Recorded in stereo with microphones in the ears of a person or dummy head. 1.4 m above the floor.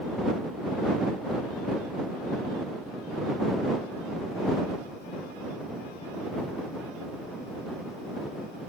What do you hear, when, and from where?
Only background noise.